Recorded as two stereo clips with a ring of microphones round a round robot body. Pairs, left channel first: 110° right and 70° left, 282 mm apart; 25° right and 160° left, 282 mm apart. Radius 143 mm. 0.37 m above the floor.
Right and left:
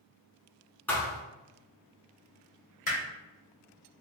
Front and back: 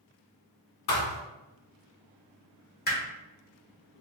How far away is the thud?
About 1.3 m.